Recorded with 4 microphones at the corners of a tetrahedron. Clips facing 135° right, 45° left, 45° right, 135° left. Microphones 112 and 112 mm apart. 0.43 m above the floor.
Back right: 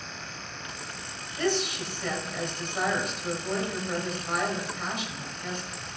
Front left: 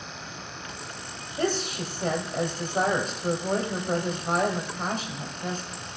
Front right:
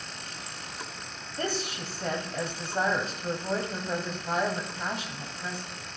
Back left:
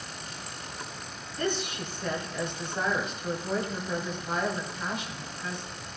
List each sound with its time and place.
1.4 s a woman speaking: straight ahead, 2.0 m